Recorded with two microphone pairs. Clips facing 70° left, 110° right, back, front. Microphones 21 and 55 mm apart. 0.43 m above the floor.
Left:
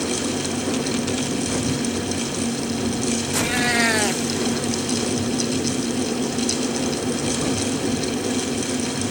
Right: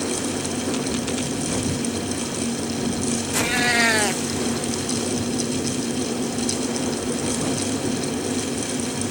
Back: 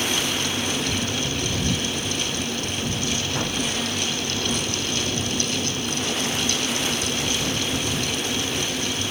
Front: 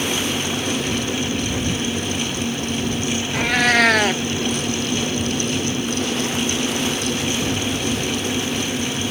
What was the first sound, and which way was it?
A cat meowing, 25° right.